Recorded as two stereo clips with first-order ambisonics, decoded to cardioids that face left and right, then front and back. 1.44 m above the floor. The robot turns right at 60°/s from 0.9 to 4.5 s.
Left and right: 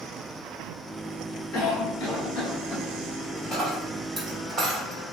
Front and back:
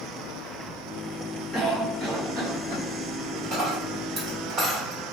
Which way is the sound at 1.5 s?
75° left.